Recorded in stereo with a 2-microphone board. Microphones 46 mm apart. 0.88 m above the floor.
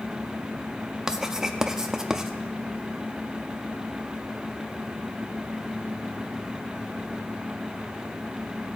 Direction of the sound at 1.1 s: 15° right (ahead or behind).